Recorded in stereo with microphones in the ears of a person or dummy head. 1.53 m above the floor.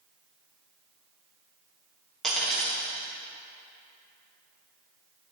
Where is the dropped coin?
5° left (ahead or behind), 1.1 m.